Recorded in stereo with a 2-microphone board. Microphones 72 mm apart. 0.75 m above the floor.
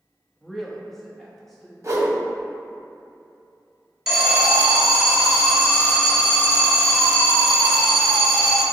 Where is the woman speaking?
5° left (ahead or behind), 0.7 m.